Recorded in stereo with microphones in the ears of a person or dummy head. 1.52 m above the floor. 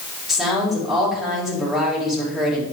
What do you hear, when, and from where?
0.3 s a woman speaking: 5° right (ahead or behind), 4 m